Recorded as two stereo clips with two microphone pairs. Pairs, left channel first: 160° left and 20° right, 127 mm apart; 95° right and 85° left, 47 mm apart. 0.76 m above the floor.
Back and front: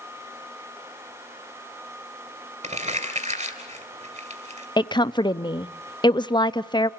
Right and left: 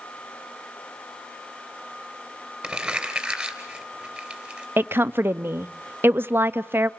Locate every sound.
2.6 s crumpling: 10° left, 3 m
4.8 s a woman speaking: 110° left, 0.6 m